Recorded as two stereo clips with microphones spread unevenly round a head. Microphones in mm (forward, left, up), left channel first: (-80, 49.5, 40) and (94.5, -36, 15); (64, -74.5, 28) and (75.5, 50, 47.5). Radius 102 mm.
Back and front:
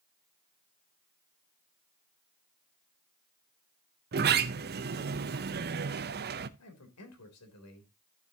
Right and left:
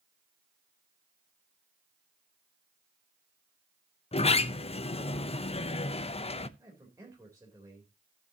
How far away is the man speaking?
About 3.5 m.